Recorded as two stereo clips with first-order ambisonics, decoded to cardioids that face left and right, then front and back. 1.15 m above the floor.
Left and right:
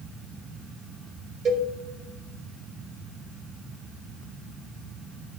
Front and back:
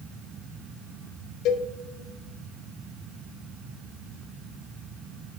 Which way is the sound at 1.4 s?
35° right.